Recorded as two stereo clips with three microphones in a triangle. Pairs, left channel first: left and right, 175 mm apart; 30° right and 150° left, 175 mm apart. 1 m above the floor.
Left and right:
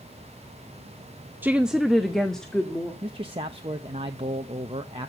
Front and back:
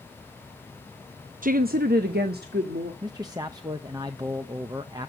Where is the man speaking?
145° right, 0.8 m.